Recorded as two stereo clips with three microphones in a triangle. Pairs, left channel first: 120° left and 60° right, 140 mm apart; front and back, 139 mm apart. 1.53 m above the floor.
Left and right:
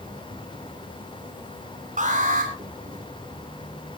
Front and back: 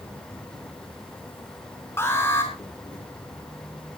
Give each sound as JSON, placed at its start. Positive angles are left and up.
{"t": 0.0, "sound": "an insect", "azimuth_deg": -45, "distance_m": 3.5}
{"t": 2.0, "sound": "an alarm", "azimuth_deg": -70, "distance_m": 7.0}